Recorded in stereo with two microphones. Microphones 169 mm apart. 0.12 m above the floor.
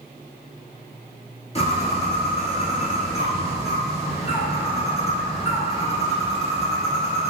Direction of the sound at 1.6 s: 40° left (ahead or behind).